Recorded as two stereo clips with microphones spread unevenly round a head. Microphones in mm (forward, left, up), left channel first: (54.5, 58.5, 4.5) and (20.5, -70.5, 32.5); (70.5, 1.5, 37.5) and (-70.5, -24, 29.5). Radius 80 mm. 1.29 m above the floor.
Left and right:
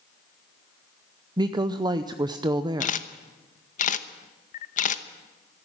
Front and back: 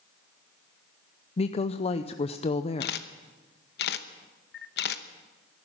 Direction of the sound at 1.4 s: 40° right.